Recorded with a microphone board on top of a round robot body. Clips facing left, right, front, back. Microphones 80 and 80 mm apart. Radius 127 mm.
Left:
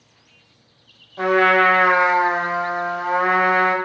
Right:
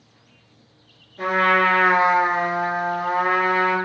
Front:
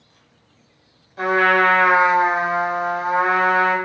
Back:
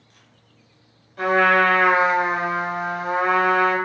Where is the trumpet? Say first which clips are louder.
Left 3 dB, front 1 dB; 75° left, 0.8 m.